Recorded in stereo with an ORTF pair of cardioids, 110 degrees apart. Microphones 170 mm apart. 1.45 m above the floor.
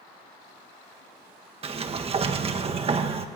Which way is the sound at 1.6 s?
35° right.